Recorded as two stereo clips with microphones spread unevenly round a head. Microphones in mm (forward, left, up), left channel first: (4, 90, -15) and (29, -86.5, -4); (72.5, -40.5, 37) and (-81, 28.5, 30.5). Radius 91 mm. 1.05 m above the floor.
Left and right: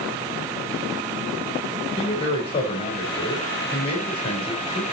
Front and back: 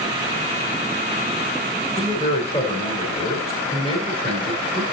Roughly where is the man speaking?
Ahead left.